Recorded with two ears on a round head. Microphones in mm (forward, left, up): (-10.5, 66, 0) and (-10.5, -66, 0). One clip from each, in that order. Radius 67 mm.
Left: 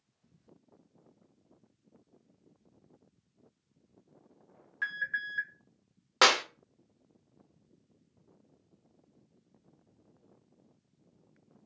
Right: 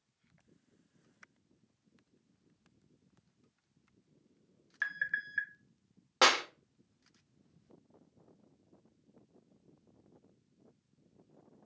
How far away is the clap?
About 0.5 m.